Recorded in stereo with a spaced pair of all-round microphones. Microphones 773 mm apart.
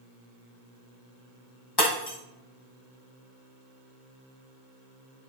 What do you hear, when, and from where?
1.8 s breaking glass: 30° left (ahead or behind), 2.0 m